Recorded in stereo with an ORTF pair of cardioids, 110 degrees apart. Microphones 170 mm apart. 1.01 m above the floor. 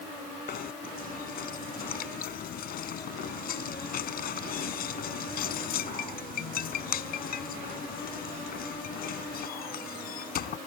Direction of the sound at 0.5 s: 60° left.